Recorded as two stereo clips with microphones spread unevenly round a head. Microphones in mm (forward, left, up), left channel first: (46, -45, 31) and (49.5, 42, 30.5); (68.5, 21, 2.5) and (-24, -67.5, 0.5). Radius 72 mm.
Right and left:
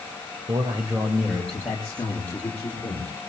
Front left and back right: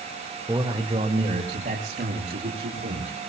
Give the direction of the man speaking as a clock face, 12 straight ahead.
7 o'clock.